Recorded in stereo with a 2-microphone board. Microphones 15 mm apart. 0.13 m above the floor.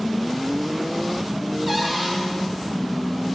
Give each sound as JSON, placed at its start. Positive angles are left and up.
{"t": 1.7, "sound": "a cupboard door", "side_deg": 0, "distance_m": 2.5}